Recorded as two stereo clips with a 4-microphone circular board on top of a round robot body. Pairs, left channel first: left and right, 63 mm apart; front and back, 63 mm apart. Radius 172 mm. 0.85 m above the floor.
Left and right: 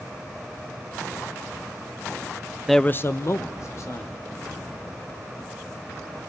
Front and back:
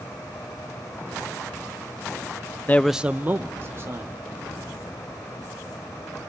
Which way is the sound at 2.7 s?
5° right.